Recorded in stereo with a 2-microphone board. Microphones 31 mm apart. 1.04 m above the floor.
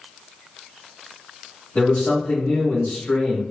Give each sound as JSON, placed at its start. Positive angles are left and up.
{"t": 1.8, "sound": "a man speaking", "side_deg": 65, "distance_m": 1.4}